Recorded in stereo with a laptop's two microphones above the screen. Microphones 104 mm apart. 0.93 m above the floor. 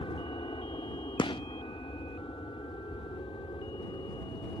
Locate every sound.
0.0 s an aircraft: 55° left (ahead or behind)
1.2 s a gunshot: 55° left (ahead or behind)